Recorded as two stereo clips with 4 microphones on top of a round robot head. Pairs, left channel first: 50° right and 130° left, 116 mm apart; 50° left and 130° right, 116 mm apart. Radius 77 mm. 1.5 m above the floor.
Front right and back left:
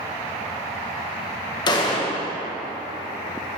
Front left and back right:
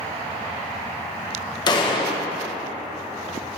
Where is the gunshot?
Straight ahead, 1.1 m.